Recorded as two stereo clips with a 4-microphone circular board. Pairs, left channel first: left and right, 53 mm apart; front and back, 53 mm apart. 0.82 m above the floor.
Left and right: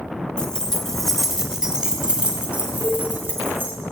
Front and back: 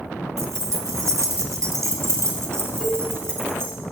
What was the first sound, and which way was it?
Keys jangling, 160° left.